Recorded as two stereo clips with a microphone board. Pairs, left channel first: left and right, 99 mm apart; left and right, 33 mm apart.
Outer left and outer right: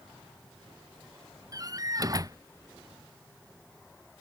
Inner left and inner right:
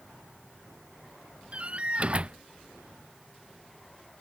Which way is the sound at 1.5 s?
35° right (ahead or behind).